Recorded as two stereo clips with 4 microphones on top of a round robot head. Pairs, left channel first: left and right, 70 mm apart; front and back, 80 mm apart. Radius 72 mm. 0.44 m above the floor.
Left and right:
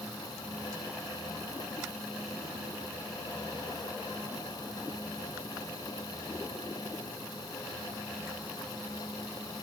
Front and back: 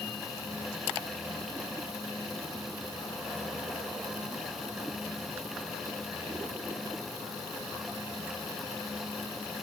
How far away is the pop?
No pop in this recording.